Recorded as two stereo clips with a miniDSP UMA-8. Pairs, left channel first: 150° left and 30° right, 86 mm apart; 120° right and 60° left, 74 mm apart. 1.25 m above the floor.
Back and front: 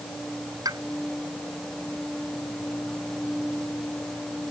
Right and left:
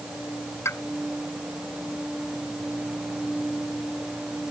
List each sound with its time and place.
0.7 s a pop: 70° right